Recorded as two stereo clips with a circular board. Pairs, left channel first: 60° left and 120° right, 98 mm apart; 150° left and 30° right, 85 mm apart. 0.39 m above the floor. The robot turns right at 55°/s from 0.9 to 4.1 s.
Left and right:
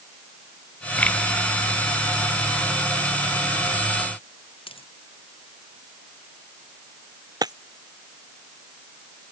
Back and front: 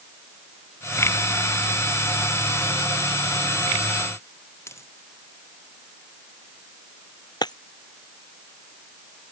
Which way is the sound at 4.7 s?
90° left.